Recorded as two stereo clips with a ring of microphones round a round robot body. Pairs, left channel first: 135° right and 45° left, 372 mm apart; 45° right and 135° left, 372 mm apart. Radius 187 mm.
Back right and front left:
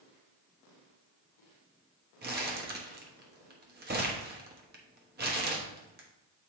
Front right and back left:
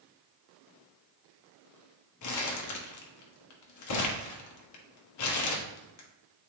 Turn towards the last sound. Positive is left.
turn(degrees=-15)